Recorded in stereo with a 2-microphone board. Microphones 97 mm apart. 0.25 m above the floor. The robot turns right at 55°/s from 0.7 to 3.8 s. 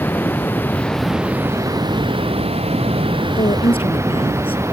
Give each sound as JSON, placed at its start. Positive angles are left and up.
{"t": 0.0, "sound": "running water", "azimuth_deg": 160}
{"t": 3.4, "sound": "a woman speaking", "side_deg": 75}